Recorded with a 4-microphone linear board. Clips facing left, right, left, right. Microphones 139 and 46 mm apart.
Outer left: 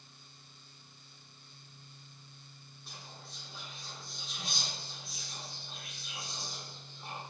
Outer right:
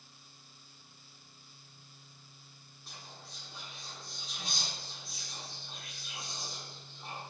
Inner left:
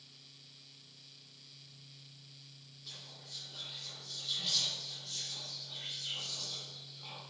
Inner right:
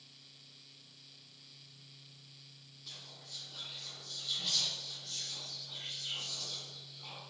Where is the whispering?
Centre (ahead or behind), 0.7 m.